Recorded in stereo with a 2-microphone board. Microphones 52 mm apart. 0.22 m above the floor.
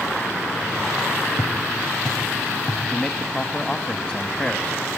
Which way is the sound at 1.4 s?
80° right.